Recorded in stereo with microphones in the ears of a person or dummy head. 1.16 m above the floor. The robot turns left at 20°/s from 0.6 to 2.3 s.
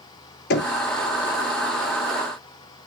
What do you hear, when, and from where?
0.5 s knocking: 60° left (ahead or behind), 1.0 m; by 0.7 s 55° left (ahead or behind), 1.0 m